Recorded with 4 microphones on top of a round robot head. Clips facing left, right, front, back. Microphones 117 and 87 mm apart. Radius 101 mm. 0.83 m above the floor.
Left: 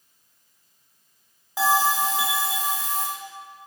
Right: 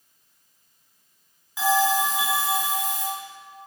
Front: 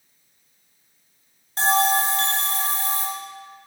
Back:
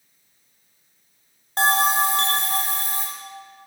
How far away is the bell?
About 1.6 m.